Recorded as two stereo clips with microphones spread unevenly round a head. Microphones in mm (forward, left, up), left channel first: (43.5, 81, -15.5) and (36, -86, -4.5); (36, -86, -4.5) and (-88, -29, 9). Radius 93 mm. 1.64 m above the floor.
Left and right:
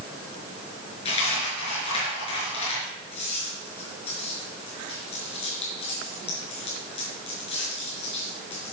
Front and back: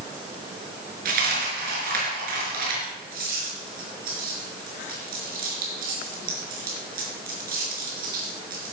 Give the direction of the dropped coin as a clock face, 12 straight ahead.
7 o'clock.